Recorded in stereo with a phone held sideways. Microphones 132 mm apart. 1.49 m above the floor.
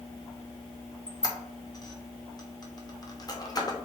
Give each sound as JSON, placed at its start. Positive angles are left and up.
{"t": 1.1, "sound": "a squeak", "side_deg": 30, "distance_m": 0.5}